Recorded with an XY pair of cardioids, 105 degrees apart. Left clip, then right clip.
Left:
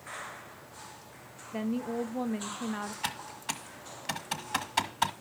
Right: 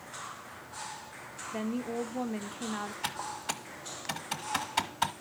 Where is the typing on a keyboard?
10° left, 1.1 m.